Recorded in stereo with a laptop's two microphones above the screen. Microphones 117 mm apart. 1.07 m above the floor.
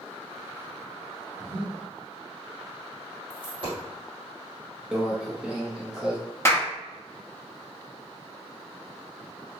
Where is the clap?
25° left (ahead or behind), 0.9 m.